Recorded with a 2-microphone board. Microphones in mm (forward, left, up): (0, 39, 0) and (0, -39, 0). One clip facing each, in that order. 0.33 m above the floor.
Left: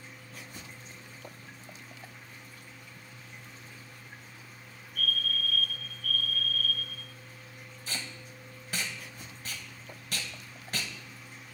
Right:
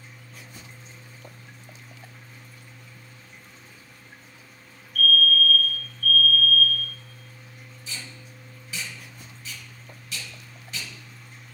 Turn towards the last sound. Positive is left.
turn(degrees=50)  # may be behind; listen again after turning